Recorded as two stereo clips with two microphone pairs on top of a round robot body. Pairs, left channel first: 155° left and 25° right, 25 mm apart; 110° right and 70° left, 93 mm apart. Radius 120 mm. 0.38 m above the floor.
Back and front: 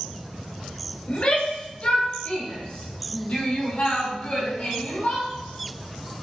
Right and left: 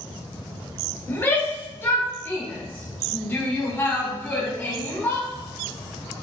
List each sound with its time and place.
1.1 s a shout: 170° right, 3 m; by 5.3 s straight behind, 5 m